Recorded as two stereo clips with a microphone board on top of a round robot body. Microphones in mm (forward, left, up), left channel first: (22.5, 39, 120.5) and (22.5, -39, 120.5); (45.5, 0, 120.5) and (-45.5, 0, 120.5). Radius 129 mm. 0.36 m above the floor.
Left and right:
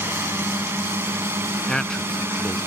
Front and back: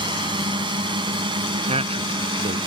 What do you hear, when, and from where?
0.0 s a drone: 150° right
1.7 s a man speaking: 175° left